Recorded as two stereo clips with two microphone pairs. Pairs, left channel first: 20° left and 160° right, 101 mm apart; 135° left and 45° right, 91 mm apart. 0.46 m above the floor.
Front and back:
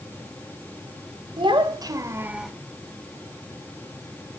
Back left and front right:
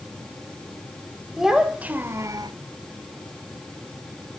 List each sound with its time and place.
1.4 s a child speaking: 130° right, 1.2 m; by 2.5 s 75° right, 0.6 m